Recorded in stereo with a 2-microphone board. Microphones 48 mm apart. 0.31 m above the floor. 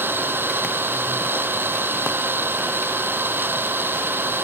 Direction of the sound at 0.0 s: 50° right (ahead or behind).